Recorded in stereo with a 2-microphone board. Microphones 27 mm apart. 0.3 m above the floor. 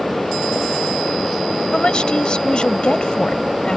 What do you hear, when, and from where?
1.7 s a woman speaking: 35° left (ahead or behind)